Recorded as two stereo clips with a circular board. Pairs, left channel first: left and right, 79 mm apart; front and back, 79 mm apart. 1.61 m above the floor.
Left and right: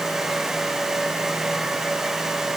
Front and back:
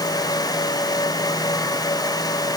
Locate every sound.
Only background noise.